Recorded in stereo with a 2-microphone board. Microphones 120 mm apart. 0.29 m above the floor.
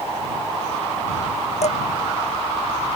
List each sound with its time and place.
1.6 s dishes clattering: 65° left (ahead or behind)